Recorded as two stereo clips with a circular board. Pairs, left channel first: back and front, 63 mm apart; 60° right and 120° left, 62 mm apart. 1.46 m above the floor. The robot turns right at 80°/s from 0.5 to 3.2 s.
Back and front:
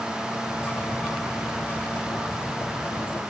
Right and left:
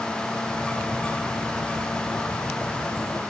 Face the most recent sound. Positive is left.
No sound to turn to.